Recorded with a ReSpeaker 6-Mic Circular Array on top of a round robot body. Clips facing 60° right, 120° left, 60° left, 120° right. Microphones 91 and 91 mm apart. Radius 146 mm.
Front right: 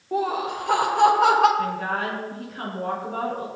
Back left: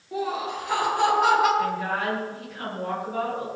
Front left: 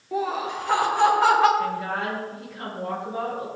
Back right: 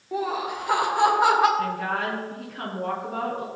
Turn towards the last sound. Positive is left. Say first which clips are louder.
# even, even
turn(degrees=-100)